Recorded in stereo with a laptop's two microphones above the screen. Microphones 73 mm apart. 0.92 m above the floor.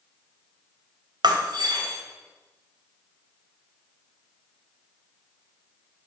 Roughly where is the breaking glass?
Right.